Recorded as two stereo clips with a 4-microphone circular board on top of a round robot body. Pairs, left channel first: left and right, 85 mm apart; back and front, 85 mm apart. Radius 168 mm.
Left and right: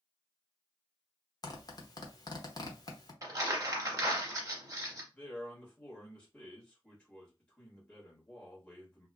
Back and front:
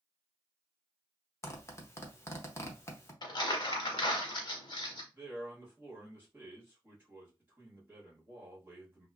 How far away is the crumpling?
About 0.6 m.